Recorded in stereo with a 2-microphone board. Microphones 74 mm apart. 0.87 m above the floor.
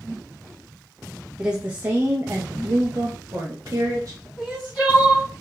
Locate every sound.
1.4 s a woman speaking: 10° right (ahead or behind), 0.6 m; by 4.3 s 40° right (ahead or behind), 1.3 m
4.4 s crying: 15° left (ahead or behind), 2.5 m